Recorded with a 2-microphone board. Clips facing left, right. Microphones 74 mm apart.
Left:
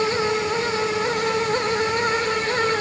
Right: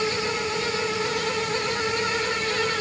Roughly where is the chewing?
No chewing in this recording.